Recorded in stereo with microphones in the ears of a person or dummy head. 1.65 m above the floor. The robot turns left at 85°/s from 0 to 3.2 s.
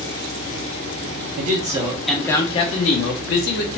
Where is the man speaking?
120° right, 0.6 m; by 3.8 s 85° left, 0.6 m.